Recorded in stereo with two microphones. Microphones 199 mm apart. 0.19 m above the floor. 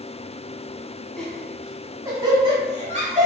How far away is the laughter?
About 1.1 m.